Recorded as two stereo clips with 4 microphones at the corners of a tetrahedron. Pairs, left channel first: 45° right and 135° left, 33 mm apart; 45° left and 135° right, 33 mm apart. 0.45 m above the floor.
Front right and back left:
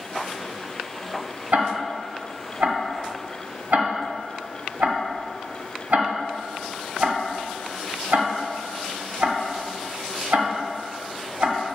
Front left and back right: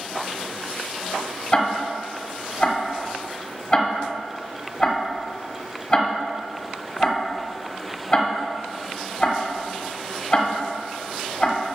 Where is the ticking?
115° left, 1.1 m.